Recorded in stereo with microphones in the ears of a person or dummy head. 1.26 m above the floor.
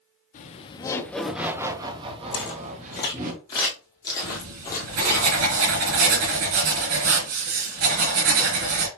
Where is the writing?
65° right (ahead or behind), 3.5 m.